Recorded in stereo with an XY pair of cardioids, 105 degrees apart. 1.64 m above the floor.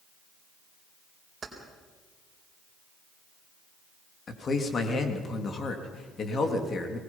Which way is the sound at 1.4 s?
35° right.